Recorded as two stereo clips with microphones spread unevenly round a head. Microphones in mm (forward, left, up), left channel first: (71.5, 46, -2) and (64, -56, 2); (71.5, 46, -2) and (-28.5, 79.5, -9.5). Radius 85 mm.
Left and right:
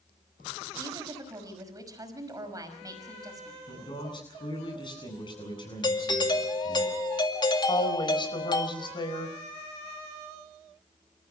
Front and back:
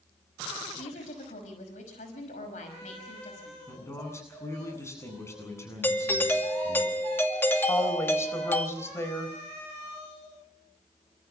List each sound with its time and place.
0.8 s a woman speaking: 40° right, 5.5 m
3.7 s a man speaking: 45° left, 8.5 m
5.8 s a doorbell: 50° left, 2.5 m
7.7 s a woman speaking: 45° left, 4.5 m